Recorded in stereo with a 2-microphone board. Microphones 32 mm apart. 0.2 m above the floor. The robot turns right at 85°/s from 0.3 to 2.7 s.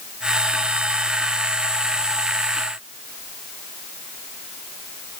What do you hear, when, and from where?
Only background noise.